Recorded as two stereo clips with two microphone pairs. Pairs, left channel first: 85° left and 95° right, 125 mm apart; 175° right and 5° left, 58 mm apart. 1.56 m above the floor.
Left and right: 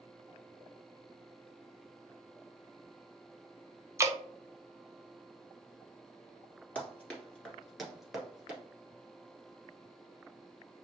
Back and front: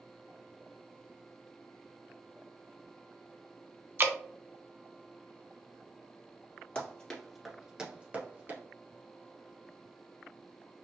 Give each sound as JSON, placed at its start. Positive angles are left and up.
{"t": 4.0, "sound": "dripping", "azimuth_deg": -35, "distance_m": 0.5}
{"t": 6.8, "sound": "running footsteps", "azimuth_deg": 150, "distance_m": 1.7}